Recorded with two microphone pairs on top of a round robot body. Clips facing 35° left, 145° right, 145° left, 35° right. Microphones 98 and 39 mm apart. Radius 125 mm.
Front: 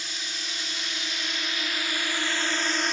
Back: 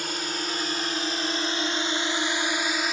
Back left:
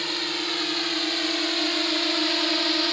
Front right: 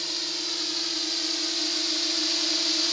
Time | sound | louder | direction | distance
0.0 | a drone | back 8 dB, back left 5 dB | 170° right | ?